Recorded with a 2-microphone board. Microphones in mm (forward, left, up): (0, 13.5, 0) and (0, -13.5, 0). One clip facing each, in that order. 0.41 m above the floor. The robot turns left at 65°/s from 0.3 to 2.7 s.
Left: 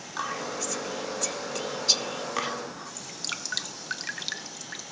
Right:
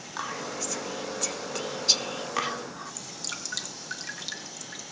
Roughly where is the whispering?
Centre.